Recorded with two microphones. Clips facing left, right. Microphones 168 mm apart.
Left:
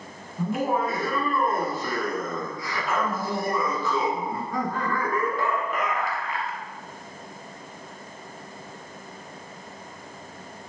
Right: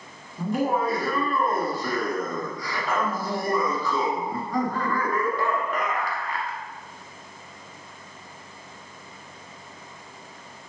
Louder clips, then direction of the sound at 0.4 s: Right 1 dB; centre (ahead or behind).